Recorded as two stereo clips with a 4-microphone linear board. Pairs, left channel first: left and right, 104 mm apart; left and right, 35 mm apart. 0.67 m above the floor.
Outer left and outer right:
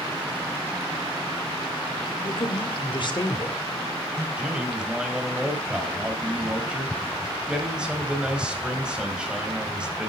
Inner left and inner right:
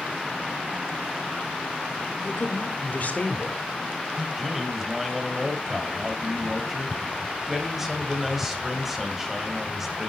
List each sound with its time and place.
2.2 s a woman speaking: 65° left (ahead or behind), 2.5 m; by 4.3 s 30° left (ahead or behind), 3 m
4.4 s a man speaking: 10° right (ahead or behind), 3.5 m